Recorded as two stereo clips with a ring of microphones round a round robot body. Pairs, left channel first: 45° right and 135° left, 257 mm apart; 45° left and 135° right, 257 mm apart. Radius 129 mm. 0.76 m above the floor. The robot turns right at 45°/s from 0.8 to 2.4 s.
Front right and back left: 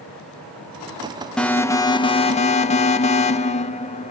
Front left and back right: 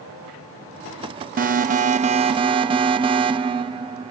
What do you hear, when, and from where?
1.4 s an alarm: 130° right, 0.7 m; by 4.1 s 85° right, 0.7 m